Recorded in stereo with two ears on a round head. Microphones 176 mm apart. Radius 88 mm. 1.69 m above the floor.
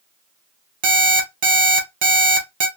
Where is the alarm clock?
45° right (ahead or behind), 1.0 m.